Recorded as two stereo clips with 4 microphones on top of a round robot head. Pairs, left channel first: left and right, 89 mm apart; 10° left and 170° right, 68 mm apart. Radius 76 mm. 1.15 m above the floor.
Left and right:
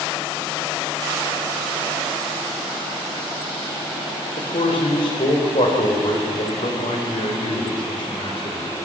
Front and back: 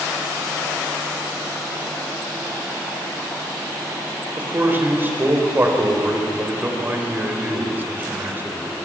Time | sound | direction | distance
4.4 | a man speaking | 130° left | 4 m